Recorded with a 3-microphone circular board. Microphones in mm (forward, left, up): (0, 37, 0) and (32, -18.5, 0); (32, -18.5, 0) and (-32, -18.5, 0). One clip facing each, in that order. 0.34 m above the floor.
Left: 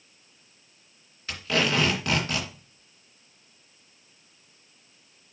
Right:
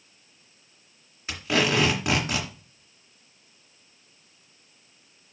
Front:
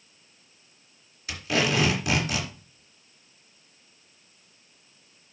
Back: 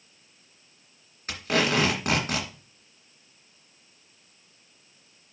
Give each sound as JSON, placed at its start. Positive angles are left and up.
{"t": 1.3, "sound": "tape being pulled", "azimuth_deg": -135, "distance_m": 2.5}